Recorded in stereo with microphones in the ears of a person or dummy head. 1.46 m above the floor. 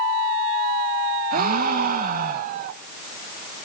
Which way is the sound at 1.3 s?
50° right (ahead or behind).